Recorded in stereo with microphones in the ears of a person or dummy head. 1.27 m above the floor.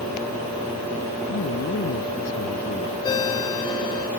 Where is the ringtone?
30° left (ahead or behind).